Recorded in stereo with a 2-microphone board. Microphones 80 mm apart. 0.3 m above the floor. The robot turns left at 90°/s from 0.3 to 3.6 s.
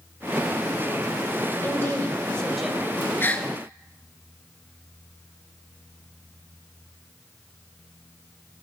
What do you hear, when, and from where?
1.6 s a woman speaking: 90° left, 1.2 m; by 2.9 s 30° right, 1.2 m
3.2 s a gasp: 30° left (ahead or behind), 0.7 m; by 3.5 s 5° left (ahead or behind), 0.7 m